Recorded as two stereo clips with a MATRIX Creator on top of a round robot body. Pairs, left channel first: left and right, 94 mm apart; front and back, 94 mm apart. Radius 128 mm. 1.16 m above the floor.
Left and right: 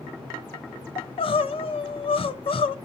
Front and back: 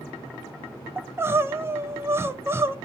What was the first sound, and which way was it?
Crying, 115° left.